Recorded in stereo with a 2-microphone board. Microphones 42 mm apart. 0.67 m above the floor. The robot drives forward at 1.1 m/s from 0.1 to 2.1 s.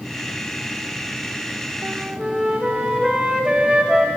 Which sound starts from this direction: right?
A flute, at 1.8 s.